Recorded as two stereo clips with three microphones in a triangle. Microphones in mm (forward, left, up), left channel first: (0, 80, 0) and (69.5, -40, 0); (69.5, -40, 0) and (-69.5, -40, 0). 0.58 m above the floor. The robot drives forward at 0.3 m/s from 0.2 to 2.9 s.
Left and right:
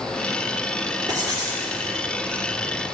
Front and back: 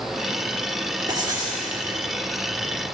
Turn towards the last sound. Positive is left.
turn(degrees=-130)